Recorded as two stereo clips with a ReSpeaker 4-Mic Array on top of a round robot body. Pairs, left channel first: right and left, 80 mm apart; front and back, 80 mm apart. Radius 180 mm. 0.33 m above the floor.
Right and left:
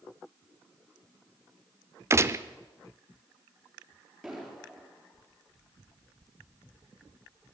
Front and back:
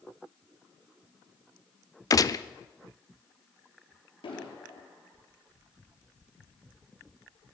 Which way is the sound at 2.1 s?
35° left.